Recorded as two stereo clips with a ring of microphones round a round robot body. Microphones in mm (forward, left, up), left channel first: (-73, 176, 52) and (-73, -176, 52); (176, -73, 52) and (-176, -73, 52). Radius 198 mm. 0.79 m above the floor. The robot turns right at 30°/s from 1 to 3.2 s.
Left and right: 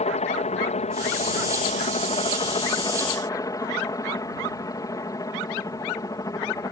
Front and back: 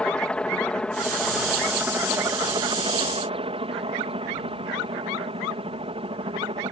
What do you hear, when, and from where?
0.0 s a helicopter: 80° left; by 6.7 s 145° left